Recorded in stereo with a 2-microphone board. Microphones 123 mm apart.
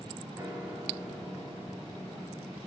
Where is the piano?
20° right (ahead or behind), 2.5 m.